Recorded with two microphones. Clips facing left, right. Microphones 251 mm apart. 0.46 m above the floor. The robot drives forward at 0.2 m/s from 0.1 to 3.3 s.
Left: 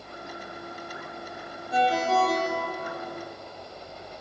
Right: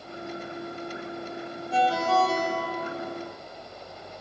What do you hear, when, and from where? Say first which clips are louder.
1.7 s a ringtone: even; 20° left (ahead or behind), 0.6 m; by 3.0 s 15° left (ahead or behind), 0.7 m